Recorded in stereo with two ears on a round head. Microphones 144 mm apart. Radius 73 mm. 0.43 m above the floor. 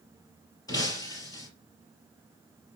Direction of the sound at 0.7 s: 25° left (ahead or behind).